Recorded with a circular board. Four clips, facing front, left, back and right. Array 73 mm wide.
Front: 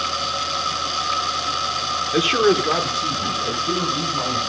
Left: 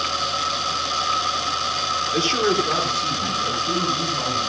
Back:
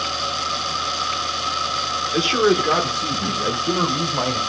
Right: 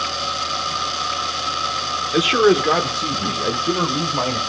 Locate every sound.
2.1 s a man speaking: 55° right, 0.8 m; by 4.4 s 130° right, 1.7 m